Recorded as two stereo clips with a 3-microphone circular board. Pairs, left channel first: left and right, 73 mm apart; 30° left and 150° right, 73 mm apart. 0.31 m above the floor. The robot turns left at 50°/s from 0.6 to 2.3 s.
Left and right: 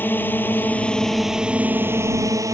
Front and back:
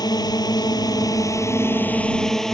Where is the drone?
30° left; by 2.5 s 55° right.